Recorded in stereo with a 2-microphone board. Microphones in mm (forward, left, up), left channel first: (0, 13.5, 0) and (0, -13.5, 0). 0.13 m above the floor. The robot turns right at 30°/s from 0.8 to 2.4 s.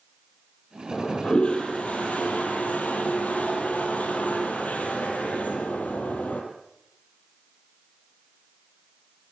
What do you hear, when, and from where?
0.9 s a toilet flushing: 25° left, 4 m; by 6.4 s 70° left, 4 m